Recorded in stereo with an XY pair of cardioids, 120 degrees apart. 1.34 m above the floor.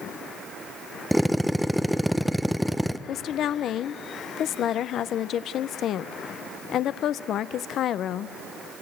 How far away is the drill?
About 0.6 m.